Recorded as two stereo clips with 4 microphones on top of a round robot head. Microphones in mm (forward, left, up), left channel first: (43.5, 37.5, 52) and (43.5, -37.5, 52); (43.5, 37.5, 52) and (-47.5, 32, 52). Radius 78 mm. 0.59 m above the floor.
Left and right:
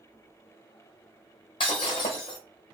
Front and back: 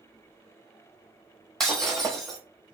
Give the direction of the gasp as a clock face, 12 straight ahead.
No gasp in this recording.